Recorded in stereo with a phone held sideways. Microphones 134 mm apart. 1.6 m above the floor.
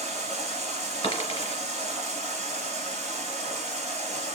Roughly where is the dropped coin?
Left.